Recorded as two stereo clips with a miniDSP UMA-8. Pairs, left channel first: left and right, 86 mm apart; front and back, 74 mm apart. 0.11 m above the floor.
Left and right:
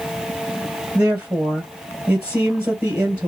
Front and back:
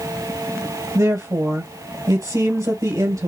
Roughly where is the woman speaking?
Behind.